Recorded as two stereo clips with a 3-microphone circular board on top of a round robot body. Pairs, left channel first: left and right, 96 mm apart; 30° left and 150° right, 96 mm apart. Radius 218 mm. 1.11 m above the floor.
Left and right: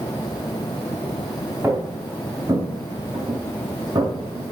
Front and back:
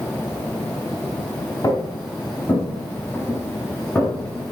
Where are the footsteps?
20° right, 6.5 m; by 4.5 s 50° right, 6.5 m.